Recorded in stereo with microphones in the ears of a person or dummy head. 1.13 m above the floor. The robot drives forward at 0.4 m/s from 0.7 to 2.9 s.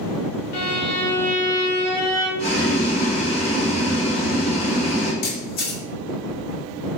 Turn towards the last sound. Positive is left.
turn(degrees=70)  # may be behind; listen again after turning